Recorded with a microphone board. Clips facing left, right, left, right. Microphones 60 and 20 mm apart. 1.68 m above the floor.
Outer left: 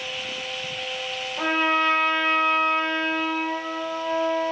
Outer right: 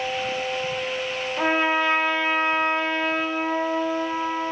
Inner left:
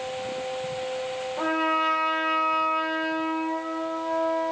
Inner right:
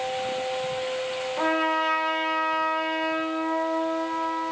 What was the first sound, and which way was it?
A trumpet, 20° right (ahead or behind).